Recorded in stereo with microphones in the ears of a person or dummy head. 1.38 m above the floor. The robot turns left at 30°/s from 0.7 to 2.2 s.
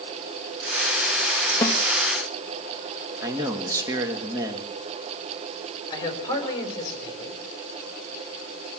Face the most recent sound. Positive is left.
turn(degrees=30)  # may be behind; listen again after turning